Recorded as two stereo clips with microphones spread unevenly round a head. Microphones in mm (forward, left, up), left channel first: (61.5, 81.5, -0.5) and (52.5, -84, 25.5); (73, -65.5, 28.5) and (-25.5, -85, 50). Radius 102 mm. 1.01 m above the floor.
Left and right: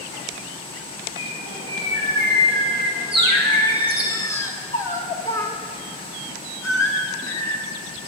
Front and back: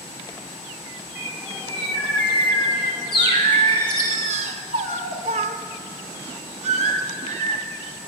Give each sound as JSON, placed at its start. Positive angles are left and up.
{"t": 1.1, "sound": "a bird", "azimuth_deg": -30, "distance_m": 4.5}
{"t": 3.2, "sound": "singing", "azimuth_deg": 165, "distance_m": 0.8}